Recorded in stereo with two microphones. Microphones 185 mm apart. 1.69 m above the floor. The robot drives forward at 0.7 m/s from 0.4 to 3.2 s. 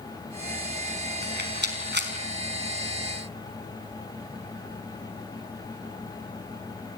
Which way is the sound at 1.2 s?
70° right (ahead or behind).